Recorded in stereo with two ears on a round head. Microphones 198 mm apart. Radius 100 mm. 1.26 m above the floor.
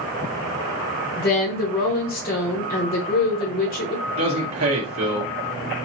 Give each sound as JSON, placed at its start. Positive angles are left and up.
{"t": 1.2, "sound": "a woman speaking", "side_deg": 40, "distance_m": 1.0}
{"t": 4.1, "sound": "a man speaking", "side_deg": -65, "distance_m": 1.8}